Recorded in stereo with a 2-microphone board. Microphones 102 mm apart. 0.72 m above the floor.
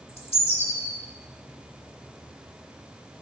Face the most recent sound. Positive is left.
turn(degrees=85)